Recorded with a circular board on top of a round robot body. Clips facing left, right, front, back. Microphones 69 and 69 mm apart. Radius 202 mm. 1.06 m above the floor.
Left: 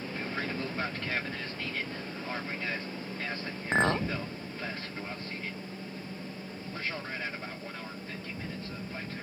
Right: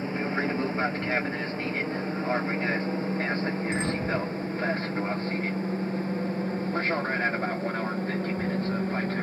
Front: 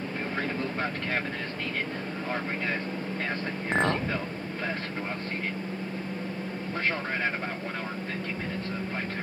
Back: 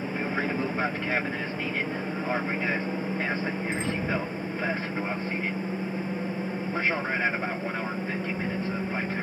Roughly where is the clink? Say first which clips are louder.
Left 2 dB, front 4 dB; ahead left.